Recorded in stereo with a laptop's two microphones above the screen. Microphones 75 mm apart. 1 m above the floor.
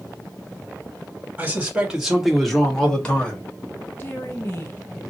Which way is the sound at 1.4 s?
20° right (ahead or behind).